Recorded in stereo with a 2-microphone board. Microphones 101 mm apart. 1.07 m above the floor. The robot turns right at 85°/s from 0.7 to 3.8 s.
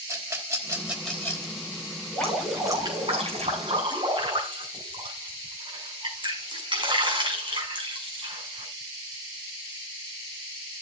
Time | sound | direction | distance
0.1 | a rattle | 30° right (ahead or behind) | 3.5 m
2.1 | dripping | 15° left (ahead or behind) | 6 m